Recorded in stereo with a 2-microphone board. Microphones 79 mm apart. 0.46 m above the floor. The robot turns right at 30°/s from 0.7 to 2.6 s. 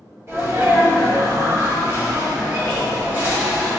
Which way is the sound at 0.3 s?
105° right.